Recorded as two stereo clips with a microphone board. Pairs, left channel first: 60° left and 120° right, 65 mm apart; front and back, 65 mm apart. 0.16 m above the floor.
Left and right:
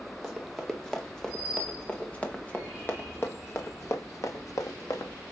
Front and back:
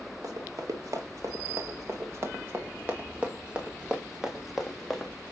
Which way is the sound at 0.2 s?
150° left.